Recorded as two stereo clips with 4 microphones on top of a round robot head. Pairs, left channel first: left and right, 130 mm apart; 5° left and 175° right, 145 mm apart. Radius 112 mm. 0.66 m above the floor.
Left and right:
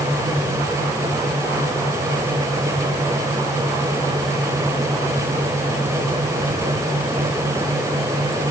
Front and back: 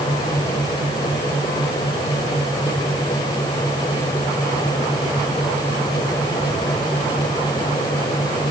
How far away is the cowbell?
I don't hear a cowbell.